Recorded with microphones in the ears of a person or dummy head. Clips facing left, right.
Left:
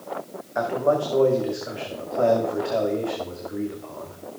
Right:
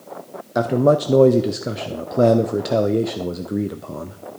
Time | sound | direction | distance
0.6 | a man speaking | 50° right (ahead or behind) | 0.7 m